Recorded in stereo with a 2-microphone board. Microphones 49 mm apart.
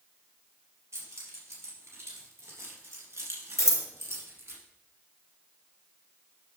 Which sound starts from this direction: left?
Scissors, at 3.6 s.